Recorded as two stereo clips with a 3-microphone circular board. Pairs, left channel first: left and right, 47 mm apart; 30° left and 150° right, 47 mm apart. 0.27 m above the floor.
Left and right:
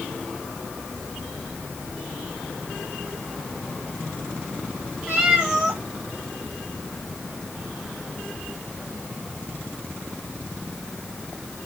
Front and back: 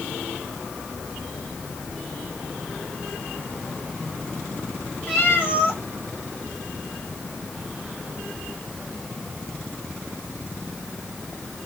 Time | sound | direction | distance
5.1 | a cat meowing | 25° right | 4.5 m